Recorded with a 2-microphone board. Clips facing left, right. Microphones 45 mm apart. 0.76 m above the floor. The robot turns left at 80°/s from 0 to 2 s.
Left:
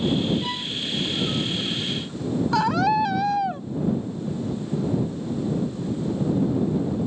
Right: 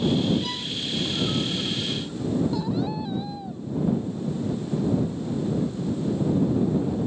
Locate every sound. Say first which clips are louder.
0.4 s a violin: left 2 dB; 30° left (ahead or behind); by 0.7 s 5° left (ahead or behind)
2.5 s a scream: left 7 dB; 85° left